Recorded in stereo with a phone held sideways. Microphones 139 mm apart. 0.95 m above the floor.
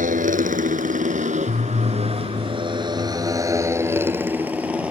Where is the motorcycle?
85° right; by 4.9 s 10° right (ahead or behind).